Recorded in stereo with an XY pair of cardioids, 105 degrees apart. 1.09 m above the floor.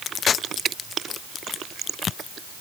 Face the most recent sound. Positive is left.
No sound to turn to.